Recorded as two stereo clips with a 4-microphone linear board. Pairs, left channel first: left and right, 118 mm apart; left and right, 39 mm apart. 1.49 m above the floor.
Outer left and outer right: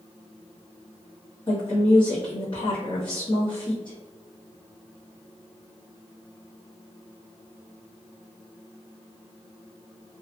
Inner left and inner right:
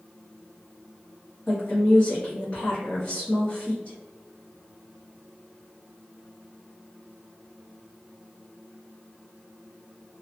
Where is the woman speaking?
40° left (ahead or behind), 0.9 m.